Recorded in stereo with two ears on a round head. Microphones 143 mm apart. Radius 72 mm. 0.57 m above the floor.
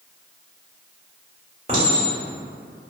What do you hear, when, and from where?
1.7 s a clink: 35° right (ahead or behind), 1.2 m